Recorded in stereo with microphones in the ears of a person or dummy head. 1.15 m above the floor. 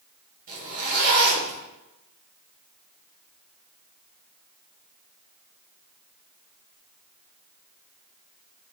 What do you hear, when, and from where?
0.5 s a zipper: 45° right (ahead or behind), 0.9 m